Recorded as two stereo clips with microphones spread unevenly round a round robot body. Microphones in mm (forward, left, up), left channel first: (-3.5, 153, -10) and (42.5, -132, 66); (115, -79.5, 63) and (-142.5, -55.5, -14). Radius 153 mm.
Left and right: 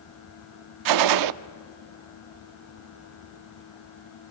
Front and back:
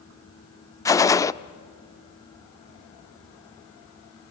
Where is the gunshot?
95° right, 0.6 m.